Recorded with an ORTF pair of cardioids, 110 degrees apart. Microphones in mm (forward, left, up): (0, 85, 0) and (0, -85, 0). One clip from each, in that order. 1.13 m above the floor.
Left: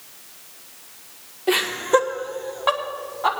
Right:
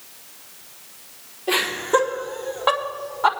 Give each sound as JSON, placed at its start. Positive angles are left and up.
{"t": 1.5, "sound": "laughter", "azimuth_deg": 35, "distance_m": 2.5}